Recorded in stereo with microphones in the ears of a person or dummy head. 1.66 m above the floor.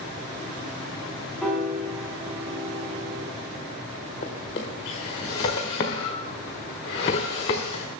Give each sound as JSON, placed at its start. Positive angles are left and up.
{"t": 1.4, "sound": "a piano", "side_deg": -5, "distance_m": 4.5}
{"t": 4.2, "sound": "a drawer", "side_deg": 20, "distance_m": 1.4}